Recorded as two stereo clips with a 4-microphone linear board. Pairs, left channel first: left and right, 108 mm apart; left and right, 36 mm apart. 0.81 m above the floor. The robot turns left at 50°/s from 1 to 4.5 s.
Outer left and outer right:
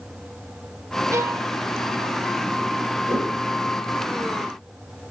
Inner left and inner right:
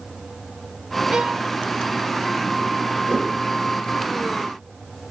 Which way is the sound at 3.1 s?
25° right (ahead or behind).